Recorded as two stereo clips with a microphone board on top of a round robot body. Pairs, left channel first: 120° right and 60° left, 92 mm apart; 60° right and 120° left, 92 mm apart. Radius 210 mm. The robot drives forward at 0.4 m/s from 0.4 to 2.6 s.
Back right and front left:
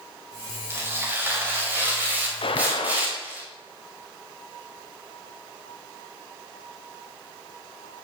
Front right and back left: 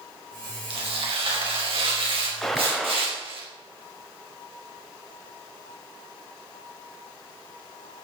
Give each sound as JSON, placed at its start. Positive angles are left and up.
{"t": 0.7, "sound": "tearing paper", "azimuth_deg": 125, "distance_m": 4.5}
{"t": 2.4, "sound": "a gunshot", "azimuth_deg": -145, "distance_m": 0.8}